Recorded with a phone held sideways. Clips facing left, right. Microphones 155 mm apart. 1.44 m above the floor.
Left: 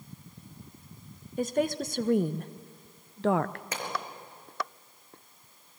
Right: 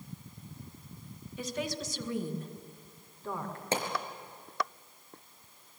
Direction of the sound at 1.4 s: 45° left (ahead or behind).